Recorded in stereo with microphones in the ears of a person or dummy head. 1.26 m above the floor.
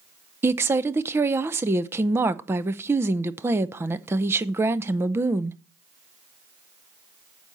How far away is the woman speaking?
About 0.6 m.